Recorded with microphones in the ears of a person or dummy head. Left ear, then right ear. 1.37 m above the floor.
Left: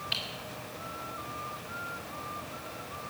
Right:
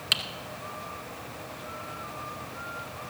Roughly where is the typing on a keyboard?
Right.